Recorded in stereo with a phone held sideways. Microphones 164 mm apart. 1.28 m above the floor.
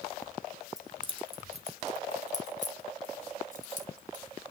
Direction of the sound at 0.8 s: 25° right (ahead or behind).